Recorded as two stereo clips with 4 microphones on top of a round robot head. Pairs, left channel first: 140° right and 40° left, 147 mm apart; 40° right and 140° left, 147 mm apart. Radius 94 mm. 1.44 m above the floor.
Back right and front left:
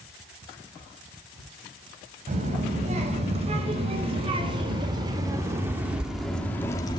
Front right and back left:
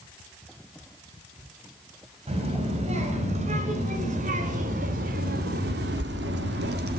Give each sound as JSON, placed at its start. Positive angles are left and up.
{"t": 2.3, "sound": "a child speaking", "azimuth_deg": 85, "distance_m": 4.5}